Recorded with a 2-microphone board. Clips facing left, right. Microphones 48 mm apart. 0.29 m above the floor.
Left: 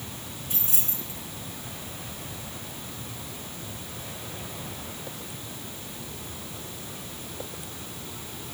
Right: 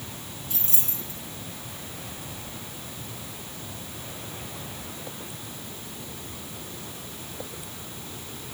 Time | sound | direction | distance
0.5 | keys jangling | 15° left (ahead or behind) | 2.5 m